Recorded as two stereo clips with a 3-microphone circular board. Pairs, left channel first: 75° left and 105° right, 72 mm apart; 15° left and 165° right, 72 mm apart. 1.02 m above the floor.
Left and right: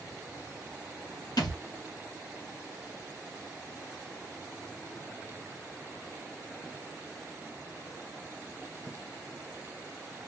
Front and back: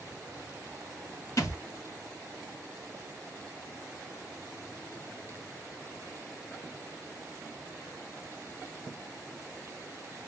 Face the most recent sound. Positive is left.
turn(degrees=60)